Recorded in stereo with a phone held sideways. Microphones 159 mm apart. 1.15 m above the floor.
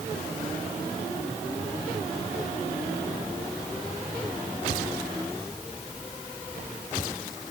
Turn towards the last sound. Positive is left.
No sound to turn to.